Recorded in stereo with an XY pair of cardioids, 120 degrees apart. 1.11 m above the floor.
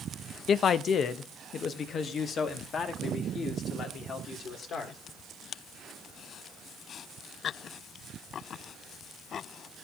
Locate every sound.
0.5 s a man speaking: 50° left, 0.6 m